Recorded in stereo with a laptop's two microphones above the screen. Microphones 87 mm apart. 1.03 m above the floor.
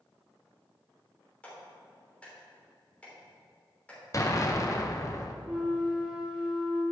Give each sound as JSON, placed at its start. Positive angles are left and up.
{"t": 1.4, "sound": "a clap", "side_deg": 15, "distance_m": 3.0}
{"t": 4.1, "sound": "an explosion", "side_deg": 35, "distance_m": 0.6}
{"t": 5.4, "sound": "a flute", "side_deg": -10, "distance_m": 1.5}